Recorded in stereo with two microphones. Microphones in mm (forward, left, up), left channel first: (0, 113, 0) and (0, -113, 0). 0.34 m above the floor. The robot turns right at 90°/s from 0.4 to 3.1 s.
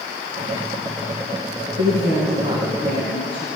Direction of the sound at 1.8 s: 95° right.